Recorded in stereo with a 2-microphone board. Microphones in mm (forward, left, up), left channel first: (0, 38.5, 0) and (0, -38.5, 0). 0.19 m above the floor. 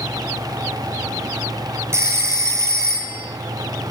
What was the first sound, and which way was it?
A phone ringing, 40° right (ahead or behind).